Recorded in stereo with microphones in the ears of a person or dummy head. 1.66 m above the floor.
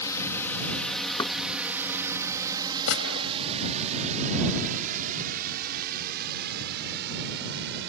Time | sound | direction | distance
0.0 | a drone | 15° left (ahead or behind) | ?
1.2 | knocking | 25° left (ahead or behind) | ?
2.9 | a gunshot | 80° left | ?